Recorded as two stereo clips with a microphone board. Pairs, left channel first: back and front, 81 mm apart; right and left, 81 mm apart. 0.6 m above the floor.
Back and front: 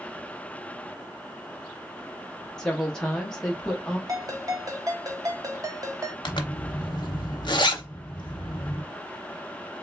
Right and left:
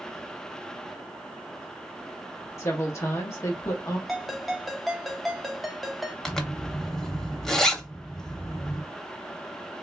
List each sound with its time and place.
2.6 s a woman speaking: 105° right, 0.7 m
4.1 s a ringtone: straight ahead, 0.6 m
6.2 s a zipper: 175° right, 0.7 m